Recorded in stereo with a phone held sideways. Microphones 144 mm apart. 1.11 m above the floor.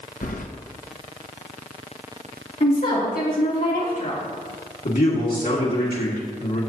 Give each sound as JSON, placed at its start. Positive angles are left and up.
{"t": 0.2, "sound": "keys jangling", "side_deg": 70, "distance_m": 0.7}
{"t": 2.6, "sound": "a woman speaking", "side_deg": 70, "distance_m": 2.5}
{"t": 4.8, "sound": "a man speaking", "side_deg": 80, "distance_m": 1.9}